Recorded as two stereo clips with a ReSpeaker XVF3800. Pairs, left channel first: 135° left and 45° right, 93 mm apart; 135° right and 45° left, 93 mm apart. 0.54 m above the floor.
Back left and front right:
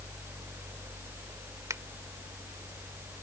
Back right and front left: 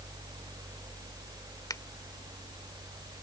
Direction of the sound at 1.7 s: 95° right.